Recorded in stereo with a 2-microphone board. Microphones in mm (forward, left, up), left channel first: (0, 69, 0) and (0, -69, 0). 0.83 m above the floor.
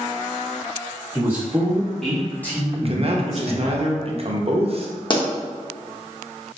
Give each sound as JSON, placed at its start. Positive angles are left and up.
{"t": 1.1, "sound": "a man speaking", "side_deg": -15, "distance_m": 1.6}
{"t": 2.7, "sound": "a man speaking", "side_deg": -45, "distance_m": 0.6}
{"t": 5.1, "sound": "a pop", "side_deg": 35, "distance_m": 0.7}